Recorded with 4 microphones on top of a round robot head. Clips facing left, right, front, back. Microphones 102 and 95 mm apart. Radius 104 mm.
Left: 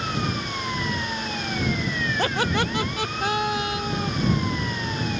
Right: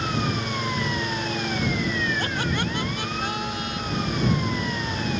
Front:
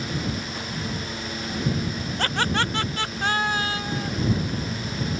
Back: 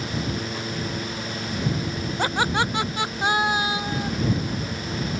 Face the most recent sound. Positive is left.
turn(degrees=105)